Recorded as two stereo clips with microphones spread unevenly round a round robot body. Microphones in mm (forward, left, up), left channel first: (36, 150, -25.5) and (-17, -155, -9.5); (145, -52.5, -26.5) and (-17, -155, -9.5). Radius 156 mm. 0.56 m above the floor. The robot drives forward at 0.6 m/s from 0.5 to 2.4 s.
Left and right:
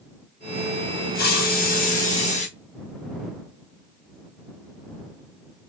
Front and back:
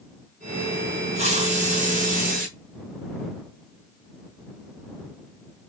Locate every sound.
1.1 s a hiss: 140° left, 2.5 m; by 2.5 s 150° left, 3 m